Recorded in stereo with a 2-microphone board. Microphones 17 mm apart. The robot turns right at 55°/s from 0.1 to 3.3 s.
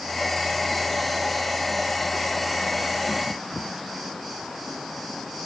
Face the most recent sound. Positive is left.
No sound to turn to.